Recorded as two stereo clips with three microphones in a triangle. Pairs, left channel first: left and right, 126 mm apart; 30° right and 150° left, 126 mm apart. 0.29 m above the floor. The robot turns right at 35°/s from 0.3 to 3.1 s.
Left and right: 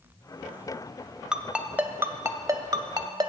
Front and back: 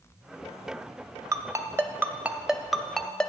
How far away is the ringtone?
About 0.6 m.